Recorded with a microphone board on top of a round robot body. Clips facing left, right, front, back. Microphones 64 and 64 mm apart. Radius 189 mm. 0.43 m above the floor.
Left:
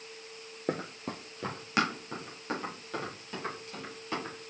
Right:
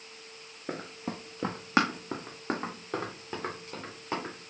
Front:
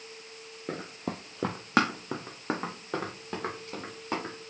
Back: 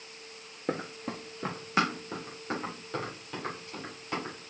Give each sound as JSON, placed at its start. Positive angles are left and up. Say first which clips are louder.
{"t": 0.7, "sound": "running footsteps", "louder": "left 2 dB, back 2 dB", "azimuth_deg": 110, "distance_m": 0.5}